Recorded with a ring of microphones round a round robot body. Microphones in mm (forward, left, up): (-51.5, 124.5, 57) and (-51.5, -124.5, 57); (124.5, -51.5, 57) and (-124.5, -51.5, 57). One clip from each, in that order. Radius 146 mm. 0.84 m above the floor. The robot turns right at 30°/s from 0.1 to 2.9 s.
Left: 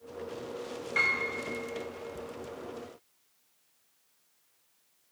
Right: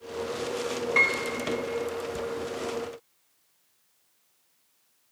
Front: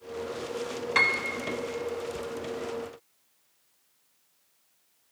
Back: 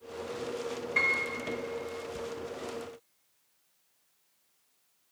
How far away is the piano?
About 0.8 m.